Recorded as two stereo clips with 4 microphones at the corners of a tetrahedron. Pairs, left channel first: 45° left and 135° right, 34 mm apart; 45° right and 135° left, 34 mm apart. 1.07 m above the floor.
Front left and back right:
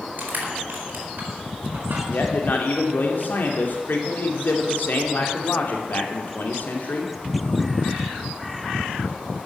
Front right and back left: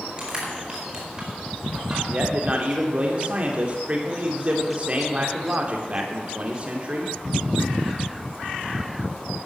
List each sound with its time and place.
0.2 s crushing: 160° right, 4.5 m
2.1 s a man speaking: 80° left, 2.5 m